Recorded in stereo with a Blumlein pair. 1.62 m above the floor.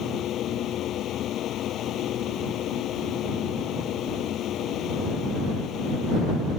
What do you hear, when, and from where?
0.0 s a fan: 30° left